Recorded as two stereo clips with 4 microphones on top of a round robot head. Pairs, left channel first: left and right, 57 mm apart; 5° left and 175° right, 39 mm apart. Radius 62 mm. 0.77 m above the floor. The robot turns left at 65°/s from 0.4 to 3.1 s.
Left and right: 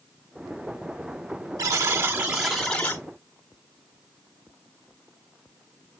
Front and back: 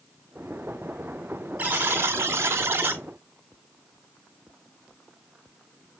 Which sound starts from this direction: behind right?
A buzzer, at 1.6 s.